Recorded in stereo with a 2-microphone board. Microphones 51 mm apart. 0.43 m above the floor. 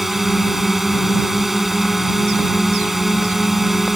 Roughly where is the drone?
Centre.